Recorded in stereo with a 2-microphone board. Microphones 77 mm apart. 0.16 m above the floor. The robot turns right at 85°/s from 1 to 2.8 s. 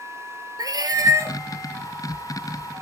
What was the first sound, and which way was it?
A cat meowing, 55° right.